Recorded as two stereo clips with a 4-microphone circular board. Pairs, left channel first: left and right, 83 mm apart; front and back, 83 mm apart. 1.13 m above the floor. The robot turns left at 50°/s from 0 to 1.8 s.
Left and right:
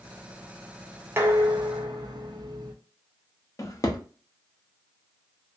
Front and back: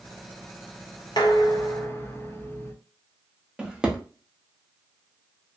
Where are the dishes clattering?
30° right, 0.6 m; by 2.7 s 60° right, 0.6 m.